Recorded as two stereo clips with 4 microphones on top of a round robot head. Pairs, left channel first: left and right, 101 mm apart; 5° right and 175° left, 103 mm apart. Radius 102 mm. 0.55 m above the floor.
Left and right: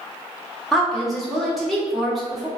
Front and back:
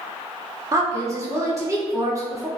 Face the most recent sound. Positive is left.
turn(degrees=180)